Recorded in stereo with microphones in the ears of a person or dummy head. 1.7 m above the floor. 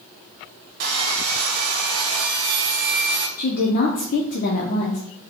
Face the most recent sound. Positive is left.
turn(degrees=45)  # may be behind; listen again after turning